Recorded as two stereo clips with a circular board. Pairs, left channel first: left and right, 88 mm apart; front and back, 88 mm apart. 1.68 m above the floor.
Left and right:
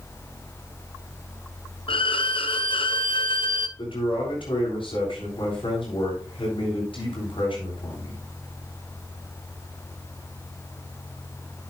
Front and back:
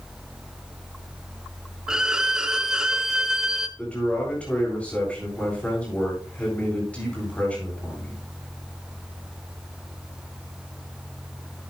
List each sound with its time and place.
1.9 s a violin: 100° left, 0.9 m
3.8 s a man speaking: 75° left, 8 m